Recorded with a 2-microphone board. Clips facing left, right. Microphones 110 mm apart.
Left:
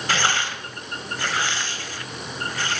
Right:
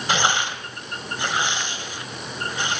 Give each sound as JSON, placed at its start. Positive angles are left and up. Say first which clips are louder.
{"t": 0.1, "sound": "tearing paper", "louder": "right 2 dB", "side_deg": -20, "distance_m": 1.8}